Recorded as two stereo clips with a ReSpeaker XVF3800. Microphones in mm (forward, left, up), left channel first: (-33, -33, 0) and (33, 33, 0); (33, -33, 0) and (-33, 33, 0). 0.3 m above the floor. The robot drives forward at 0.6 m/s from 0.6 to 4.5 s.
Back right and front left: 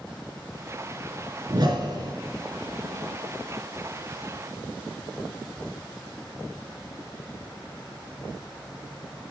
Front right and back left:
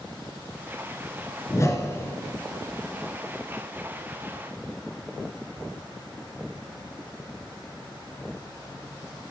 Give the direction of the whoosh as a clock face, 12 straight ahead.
12 o'clock.